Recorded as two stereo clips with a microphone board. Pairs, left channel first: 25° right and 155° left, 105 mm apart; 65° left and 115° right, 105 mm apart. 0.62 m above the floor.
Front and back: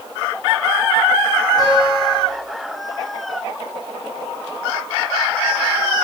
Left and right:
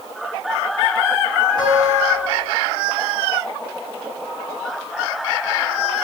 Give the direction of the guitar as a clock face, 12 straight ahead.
8 o'clock.